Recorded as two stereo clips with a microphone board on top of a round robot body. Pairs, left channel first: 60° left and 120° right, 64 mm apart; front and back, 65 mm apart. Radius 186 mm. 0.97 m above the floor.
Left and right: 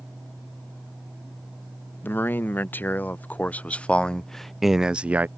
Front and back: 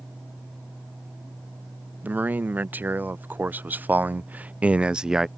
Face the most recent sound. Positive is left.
turn(degrees=-100)